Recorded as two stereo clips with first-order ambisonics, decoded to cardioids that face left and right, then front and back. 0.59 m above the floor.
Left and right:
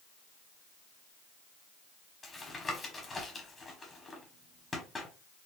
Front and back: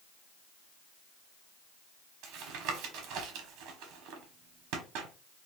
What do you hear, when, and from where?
2.2 s tapping: 165° left, 1.1 m